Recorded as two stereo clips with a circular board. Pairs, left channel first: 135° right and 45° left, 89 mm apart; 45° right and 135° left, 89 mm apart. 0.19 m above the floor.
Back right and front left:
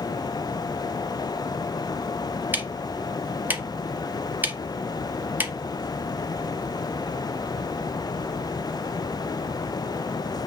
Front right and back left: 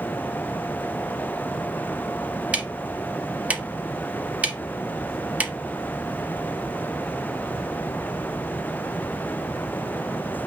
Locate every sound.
2.5 s ticking: 80° left, 0.8 m